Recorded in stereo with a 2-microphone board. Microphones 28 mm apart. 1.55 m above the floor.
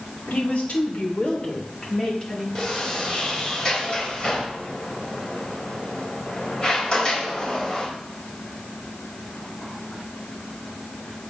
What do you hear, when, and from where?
0.3 s a woman speaking: 60° left (ahead or behind), 3.5 m; by 2.5 s 20° left (ahead or behind), 5 m
2.5 s a sliding door: 30° left (ahead or behind), 4 m